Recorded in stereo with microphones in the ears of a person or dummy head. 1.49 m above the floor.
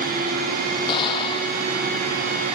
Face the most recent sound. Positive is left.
turn(degrees=25)  # may be behind; listen again after turning